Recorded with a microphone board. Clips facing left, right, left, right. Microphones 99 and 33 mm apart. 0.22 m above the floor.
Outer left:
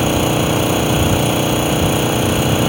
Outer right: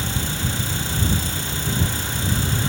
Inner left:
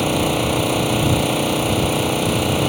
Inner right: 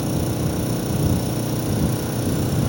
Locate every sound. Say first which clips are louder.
0.0 s an engine running: outer left 13 dB, inner left 6 dB; 70° left (ahead or behind)